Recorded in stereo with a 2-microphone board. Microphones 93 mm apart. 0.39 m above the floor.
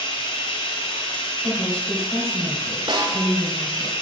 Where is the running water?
80° left, 1.2 m.